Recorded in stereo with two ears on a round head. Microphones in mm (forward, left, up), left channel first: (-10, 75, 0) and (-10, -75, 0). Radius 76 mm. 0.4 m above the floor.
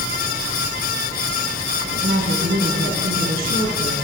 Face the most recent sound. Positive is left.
turn(degrees=-60)  # may be behind; listen again after turning